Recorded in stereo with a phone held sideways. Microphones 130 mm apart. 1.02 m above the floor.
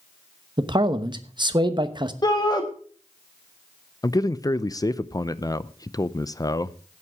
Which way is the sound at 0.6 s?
35° right (ahead or behind).